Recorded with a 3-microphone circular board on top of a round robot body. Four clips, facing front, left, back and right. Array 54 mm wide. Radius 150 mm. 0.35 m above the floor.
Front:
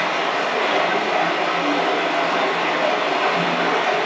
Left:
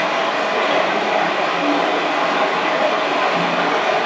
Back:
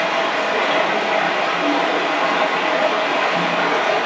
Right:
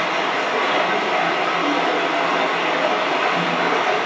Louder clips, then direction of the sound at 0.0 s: Left 2 dB, back 2 dB; 140° left.